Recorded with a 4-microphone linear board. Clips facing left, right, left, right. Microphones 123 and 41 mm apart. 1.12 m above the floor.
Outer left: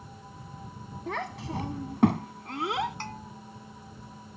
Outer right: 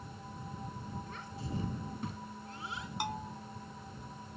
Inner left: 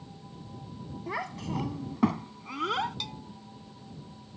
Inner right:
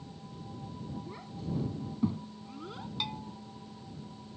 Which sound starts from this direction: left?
A child speaking, at 1.1 s.